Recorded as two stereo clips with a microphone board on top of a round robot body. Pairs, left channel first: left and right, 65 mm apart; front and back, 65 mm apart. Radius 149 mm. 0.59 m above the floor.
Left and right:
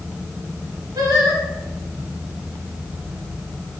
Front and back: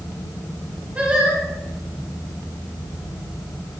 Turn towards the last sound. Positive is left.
turn(degrees=-110)